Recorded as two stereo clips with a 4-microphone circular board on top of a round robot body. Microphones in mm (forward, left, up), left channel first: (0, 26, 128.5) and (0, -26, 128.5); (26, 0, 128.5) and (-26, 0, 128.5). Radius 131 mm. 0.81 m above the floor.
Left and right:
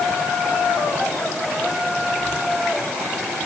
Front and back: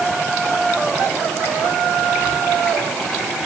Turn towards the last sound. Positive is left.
No sound to turn to.